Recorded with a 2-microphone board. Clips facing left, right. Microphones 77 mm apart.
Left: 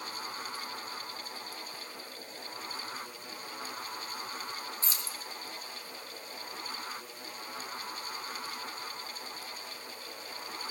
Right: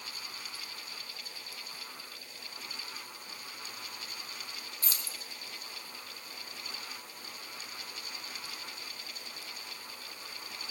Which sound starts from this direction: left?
Keys jangling, at 4.8 s.